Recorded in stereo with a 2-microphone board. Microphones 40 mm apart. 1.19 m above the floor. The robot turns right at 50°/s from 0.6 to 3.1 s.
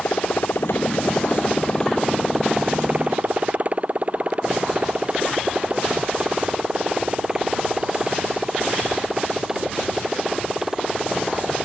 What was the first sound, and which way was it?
A motorcycle, 70° left (ahead or behind).